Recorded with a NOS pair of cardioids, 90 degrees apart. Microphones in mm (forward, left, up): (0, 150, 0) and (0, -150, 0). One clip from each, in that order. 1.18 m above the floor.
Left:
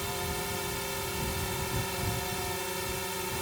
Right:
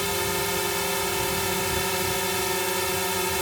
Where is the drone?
65° right.